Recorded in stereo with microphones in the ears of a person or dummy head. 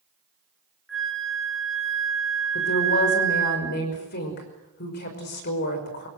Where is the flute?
Centre (ahead or behind), 2 m.